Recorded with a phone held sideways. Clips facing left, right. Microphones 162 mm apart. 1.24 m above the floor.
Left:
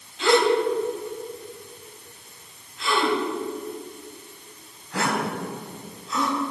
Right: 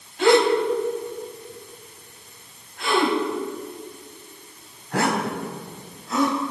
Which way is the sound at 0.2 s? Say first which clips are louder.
Right 2 dB; 55° right (ahead or behind).